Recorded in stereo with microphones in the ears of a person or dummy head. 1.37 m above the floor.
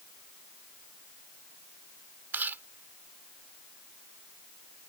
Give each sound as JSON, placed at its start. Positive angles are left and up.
{"t": 2.3, "sound": "chewing", "side_deg": -10}